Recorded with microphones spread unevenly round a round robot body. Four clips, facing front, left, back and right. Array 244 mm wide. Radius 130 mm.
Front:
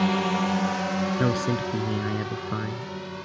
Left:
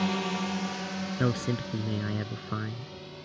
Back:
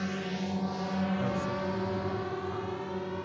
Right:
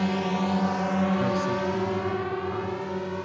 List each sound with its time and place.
0.0 s a drone: 10° right; by 3.3 s 95° right
1.2 s a man speaking: 25° left